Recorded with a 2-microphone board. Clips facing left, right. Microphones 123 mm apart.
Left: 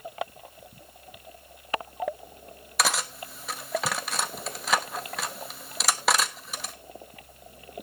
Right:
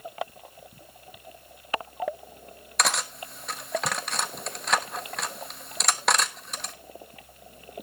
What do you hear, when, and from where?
2.8 s cutlery clinking: centre (ahead or behind), 1.1 m